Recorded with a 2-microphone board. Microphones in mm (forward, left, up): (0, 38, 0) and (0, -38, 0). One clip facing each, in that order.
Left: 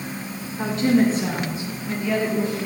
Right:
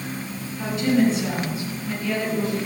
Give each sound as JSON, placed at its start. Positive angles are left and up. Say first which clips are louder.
{"t": 0.6, "sound": "a woman speaking", "louder": "left 1 dB", "side_deg": 50, "distance_m": 3.0}